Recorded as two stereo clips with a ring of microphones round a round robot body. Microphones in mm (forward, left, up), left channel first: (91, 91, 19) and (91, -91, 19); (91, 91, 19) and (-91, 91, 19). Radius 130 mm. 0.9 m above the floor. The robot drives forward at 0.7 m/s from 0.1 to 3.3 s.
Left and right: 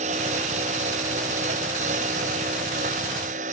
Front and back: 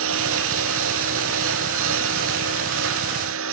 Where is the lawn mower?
155° right.